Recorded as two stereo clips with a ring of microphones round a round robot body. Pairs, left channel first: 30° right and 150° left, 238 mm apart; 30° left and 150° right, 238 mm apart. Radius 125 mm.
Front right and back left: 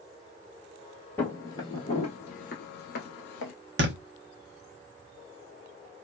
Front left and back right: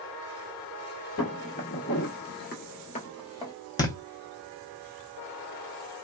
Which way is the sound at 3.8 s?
105° left.